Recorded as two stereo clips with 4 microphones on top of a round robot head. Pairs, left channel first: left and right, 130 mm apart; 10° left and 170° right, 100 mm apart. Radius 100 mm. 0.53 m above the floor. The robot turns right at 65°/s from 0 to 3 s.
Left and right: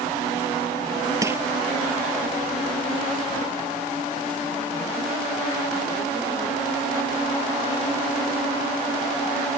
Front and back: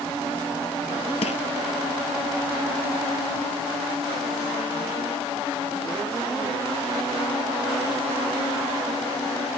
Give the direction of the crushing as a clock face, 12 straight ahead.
1 o'clock.